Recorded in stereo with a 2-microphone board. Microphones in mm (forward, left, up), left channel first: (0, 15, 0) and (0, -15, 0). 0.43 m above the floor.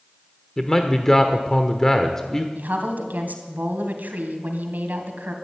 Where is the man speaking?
15° left (ahead or behind), 1.0 m.